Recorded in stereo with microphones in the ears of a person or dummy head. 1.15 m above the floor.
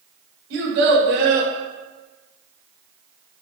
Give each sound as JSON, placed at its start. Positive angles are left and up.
{"t": 0.5, "sound": "a child speaking", "side_deg": -75, "distance_m": 2.0}